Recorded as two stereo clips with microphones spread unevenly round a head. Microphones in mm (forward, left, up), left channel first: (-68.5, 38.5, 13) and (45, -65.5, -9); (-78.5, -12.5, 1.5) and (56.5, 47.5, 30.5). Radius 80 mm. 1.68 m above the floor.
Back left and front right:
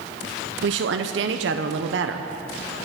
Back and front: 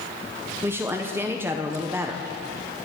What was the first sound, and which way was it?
A woman speaking, 50° right.